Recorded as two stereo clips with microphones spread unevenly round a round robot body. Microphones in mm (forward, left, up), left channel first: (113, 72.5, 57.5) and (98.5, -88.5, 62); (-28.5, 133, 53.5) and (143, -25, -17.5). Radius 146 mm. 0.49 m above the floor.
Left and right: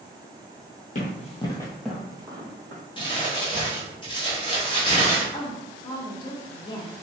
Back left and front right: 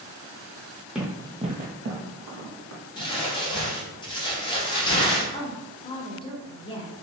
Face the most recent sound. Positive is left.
turn(degrees=55)